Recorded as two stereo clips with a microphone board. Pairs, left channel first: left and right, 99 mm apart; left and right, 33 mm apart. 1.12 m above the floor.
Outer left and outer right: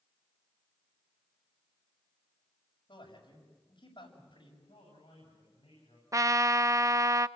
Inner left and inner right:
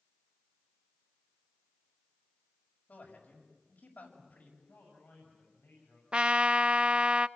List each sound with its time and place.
2.9 s a man speaking: 60° left (ahead or behind), 7 m
4.6 s a man speaking: 75° left (ahead or behind), 8.5 m
6.1 s a trumpet: 35° right (ahead or behind), 0.5 m